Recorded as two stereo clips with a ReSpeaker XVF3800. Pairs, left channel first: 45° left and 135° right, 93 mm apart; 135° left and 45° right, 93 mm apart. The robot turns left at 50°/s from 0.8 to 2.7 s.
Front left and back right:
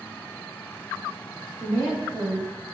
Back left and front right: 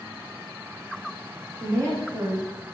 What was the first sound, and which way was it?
A woman speaking, 60° right.